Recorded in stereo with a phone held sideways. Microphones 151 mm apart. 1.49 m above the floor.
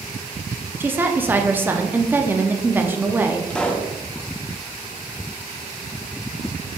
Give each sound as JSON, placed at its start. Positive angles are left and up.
{"t": 0.8, "sound": "a woman speaking", "side_deg": -15, "distance_m": 0.5}
{"t": 3.5, "sound": "a pop", "side_deg": 5, "distance_m": 0.5}